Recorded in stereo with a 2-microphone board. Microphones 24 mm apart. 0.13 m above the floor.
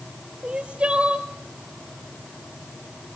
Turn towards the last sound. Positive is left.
turn(degrees=-60)  # may be behind; listen again after turning